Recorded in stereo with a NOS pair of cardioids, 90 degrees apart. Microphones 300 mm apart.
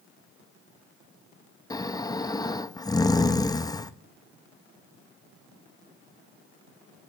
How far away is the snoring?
About 0.6 m.